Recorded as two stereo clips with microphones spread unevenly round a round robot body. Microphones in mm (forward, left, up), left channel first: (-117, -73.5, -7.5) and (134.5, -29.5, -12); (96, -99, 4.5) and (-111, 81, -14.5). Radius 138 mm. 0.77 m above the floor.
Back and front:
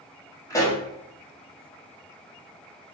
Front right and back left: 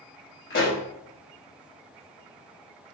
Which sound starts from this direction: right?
A pop, at 0.5 s.